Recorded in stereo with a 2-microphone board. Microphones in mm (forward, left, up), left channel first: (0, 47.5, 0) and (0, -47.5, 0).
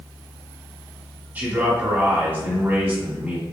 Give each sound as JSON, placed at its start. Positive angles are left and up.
{"t": 1.4, "sound": "a man speaking", "side_deg": -20, "distance_m": 1.7}